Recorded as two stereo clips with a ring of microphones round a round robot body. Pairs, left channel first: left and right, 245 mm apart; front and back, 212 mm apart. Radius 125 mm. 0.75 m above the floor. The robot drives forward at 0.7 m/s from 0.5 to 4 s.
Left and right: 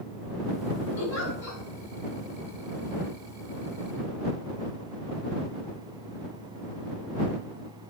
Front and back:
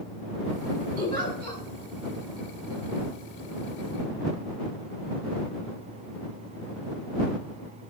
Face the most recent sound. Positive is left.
turn(degrees=140)